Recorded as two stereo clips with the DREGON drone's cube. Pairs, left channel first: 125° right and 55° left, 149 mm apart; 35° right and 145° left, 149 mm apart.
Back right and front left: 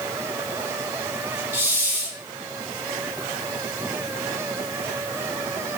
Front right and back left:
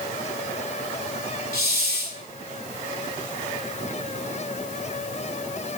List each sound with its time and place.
1.5 s a hiss: 25° right, 1.0 m